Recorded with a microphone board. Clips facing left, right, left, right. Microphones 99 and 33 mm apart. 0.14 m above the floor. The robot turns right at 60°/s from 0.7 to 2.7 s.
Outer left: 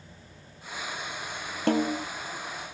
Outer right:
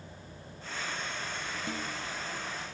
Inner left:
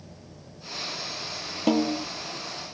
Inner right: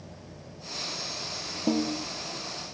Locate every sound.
1.7 s a snare drum: 70° left (ahead or behind); by 2.0 s 65° left (ahead or behind)